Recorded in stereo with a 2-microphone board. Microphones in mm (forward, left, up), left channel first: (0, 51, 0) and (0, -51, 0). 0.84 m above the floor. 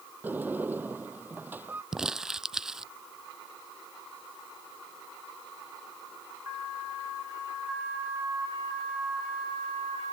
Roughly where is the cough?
No cough in this recording.